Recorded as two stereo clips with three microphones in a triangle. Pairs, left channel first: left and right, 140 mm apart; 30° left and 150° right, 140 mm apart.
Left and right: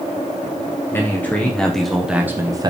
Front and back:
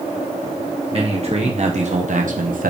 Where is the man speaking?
165° left, 1.3 m; by 2.7 s 150° right, 0.6 m.